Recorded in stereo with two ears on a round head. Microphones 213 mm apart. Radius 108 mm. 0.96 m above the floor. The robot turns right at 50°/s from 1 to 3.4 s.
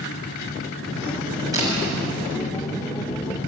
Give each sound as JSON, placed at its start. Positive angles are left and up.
{"t": 1.5, "sound": "a camera shutter", "side_deg": -15, "distance_m": 7.5}